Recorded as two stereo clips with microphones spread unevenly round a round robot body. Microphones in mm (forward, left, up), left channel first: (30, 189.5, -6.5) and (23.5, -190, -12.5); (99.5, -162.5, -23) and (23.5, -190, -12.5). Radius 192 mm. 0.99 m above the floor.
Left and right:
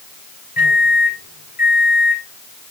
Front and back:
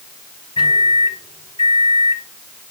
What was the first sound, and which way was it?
A microwave, 20° left.